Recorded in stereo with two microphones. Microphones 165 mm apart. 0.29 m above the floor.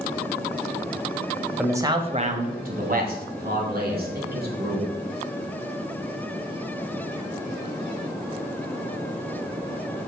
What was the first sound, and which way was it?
A man speaking, 5° right (ahead or behind).